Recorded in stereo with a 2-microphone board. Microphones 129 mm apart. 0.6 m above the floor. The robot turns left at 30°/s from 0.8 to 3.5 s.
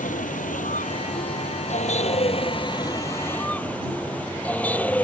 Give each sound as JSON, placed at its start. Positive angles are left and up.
{"t": 0.0, "sound": "a vehicle", "azimuth_deg": 90}